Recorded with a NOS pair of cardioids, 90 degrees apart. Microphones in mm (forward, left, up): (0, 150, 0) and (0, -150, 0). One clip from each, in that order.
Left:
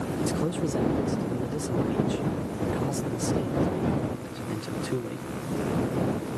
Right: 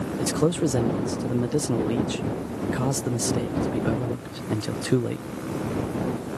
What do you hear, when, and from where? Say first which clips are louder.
0.2 s a man speaking: right 7 dB; 45° right